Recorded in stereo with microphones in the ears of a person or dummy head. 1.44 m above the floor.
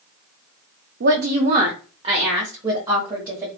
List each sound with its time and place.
1.0 s a woman speaking: 65° right (ahead or behind), 0.6 m; by 3.5 s 25° right (ahead or behind), 1.7 m